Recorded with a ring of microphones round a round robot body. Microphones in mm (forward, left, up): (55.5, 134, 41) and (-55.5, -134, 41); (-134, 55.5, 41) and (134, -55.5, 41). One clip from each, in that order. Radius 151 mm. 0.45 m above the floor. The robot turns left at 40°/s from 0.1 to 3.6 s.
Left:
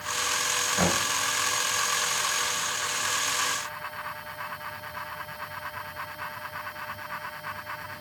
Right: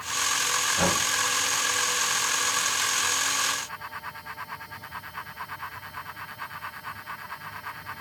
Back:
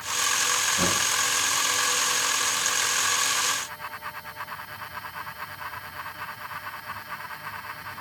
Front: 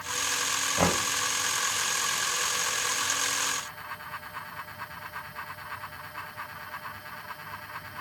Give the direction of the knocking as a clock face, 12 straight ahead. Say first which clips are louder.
Even, back 1 dB; 12 o'clock.